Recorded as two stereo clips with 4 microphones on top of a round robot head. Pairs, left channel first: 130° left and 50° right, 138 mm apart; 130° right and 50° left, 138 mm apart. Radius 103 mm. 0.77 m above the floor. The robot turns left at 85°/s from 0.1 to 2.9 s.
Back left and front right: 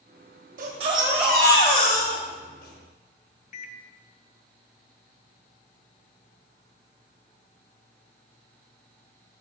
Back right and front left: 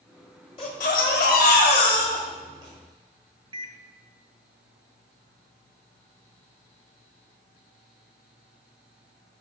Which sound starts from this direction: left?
A microwave, at 3.5 s.